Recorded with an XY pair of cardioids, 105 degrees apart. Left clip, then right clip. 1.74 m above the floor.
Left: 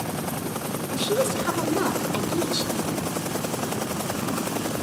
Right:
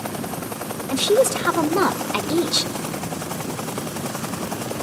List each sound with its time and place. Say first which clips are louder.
0.9 s a woman speaking: right 7 dB; 60° right, 0.9 m